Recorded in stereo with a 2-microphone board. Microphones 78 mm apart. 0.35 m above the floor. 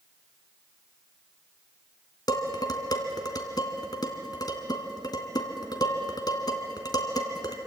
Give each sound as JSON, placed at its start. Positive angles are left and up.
{"t": 2.3, "sound": "dishes clattering", "side_deg": 60, "distance_m": 2.0}